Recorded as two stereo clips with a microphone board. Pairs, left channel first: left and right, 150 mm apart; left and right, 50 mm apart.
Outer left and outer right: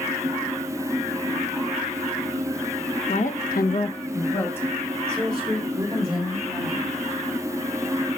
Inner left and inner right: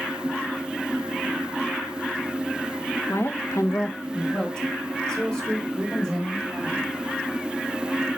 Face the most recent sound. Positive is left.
turn(degrees=0)  # may be behind; listen again after turning